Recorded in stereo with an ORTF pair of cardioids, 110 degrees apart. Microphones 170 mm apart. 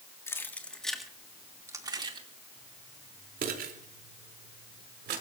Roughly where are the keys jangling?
Ahead.